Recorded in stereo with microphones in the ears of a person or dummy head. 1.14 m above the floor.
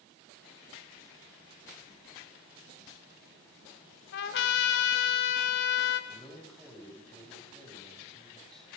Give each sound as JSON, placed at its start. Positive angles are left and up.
{"t": 4.1, "sound": "a trumpet", "side_deg": 65, "distance_m": 3.0}
{"t": 6.1, "sound": "a man speaking", "side_deg": 0, "distance_m": 9.0}